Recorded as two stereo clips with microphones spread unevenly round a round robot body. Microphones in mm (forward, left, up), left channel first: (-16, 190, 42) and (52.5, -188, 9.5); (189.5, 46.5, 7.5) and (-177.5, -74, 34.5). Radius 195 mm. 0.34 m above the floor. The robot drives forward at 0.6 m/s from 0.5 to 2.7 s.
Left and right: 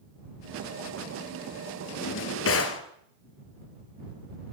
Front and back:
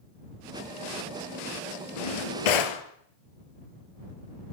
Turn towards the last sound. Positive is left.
turn(degrees=40)